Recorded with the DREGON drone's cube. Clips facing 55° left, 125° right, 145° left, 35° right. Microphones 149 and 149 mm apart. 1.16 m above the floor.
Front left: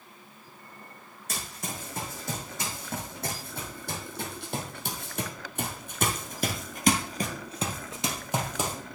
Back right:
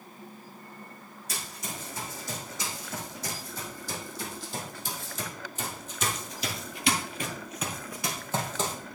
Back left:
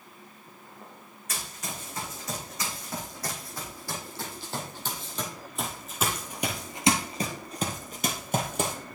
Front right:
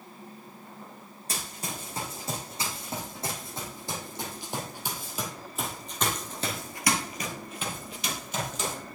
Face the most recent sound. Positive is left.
turn(degrees=135)